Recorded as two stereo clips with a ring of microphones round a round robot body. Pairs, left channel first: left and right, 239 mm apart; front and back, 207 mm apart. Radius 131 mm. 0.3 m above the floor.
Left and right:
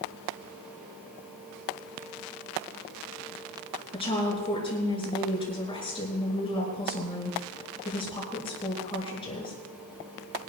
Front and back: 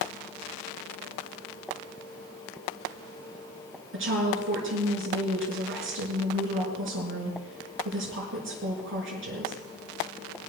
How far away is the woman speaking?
About 5 m.